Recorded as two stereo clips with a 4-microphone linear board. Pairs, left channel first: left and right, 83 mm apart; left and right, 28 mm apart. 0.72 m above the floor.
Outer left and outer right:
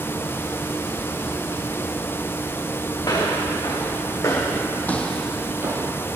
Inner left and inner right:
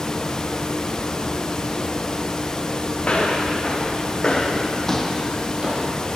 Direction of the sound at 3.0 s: 50° left (ahead or behind).